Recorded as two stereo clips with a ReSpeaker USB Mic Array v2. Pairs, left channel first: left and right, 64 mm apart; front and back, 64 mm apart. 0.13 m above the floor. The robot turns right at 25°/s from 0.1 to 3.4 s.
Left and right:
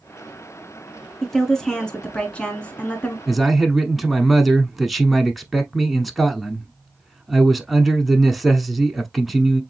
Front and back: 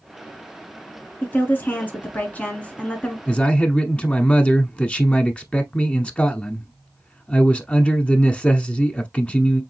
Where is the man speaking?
5° right, 1.0 m; by 9.6 s straight ahead, 1.0 m.